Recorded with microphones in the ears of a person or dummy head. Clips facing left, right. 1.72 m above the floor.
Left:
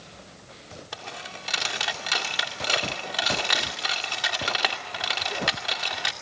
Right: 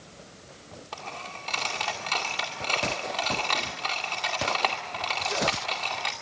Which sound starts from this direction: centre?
A dropped coin, at 0.9 s.